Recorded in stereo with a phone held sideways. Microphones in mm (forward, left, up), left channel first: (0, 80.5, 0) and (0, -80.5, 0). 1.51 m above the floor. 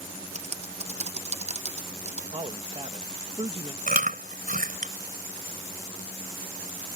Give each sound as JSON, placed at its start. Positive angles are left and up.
{"t": 0.3, "sound": "typing on a keyboard", "side_deg": -45}
{"t": 2.3, "sound": "a man speaking", "side_deg": -40}
{"t": 3.9, "sound": "chewing", "side_deg": -65}